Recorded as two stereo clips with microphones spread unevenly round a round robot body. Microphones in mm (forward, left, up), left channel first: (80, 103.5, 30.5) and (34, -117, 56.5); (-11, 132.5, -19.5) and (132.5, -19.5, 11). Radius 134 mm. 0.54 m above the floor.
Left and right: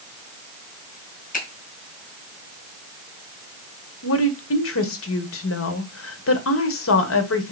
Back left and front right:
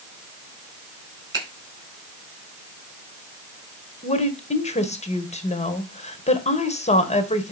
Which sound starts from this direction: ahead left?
A finger snap, at 1.3 s.